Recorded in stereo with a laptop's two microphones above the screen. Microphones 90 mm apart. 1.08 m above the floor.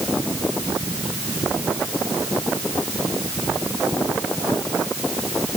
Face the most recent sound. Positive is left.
No sound to turn to.